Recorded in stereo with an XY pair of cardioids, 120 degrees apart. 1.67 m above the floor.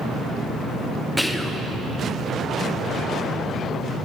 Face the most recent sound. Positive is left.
turn(degrees=0)